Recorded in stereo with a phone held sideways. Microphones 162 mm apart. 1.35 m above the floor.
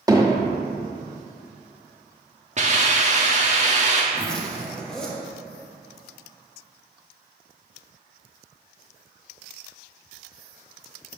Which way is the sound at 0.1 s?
20° right (ahead or behind).